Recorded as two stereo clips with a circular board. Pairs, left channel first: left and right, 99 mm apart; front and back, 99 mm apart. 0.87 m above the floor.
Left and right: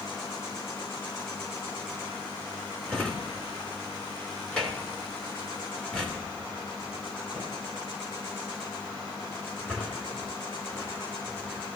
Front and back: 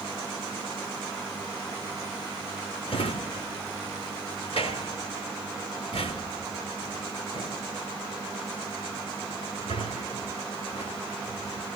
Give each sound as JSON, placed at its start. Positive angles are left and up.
{"t": 2.9, "sound": "a drawer", "azimuth_deg": 10, "distance_m": 3.0}